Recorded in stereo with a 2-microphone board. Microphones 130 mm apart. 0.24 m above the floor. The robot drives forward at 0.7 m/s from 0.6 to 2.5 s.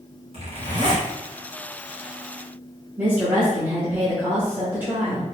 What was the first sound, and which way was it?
A zipper, 50° right (ahead or behind).